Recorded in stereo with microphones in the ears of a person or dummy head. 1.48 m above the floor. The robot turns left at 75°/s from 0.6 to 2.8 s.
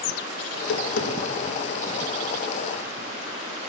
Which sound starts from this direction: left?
Tapping, at 0.5 s.